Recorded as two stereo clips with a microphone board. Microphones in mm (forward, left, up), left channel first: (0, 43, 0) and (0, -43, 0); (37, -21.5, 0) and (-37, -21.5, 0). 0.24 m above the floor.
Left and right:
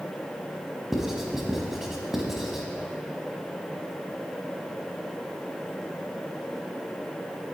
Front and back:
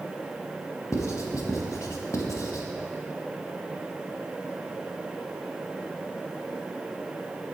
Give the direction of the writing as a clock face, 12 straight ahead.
12 o'clock.